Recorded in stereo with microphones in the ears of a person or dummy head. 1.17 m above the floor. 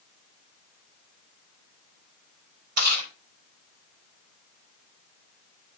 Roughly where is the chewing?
Right.